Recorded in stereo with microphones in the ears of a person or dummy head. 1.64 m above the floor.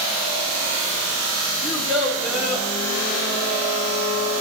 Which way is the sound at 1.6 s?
Centre (ahead or behind).